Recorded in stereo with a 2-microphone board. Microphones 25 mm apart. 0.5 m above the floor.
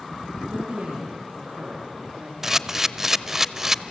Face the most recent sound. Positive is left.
turn(degrees=-20)  # may be behind; listen again after turning